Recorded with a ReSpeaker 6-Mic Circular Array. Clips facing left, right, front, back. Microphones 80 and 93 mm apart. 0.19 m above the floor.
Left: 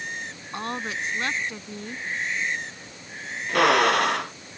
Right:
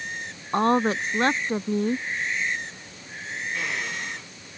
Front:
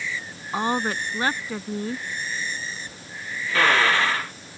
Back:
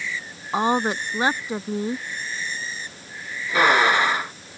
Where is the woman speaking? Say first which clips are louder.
Right 10 dB, back 3 dB; 115° right.